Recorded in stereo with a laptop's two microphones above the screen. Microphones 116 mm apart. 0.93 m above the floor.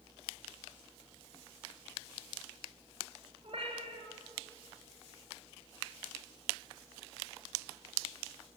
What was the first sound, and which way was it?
A cat meowing, 55° right (ahead or behind).